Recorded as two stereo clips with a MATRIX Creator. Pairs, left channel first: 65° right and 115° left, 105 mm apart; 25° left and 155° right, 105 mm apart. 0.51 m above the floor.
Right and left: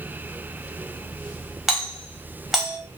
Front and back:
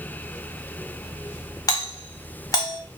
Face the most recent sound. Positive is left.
turn(degrees=35)